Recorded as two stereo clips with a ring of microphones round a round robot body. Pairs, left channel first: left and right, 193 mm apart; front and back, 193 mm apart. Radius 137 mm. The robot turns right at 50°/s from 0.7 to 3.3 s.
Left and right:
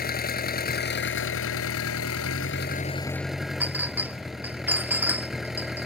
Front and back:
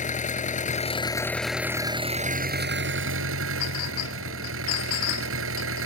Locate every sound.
0.0 s an engine running: 50° left; by 5.9 s straight behind
3.6 s a clink: 10° right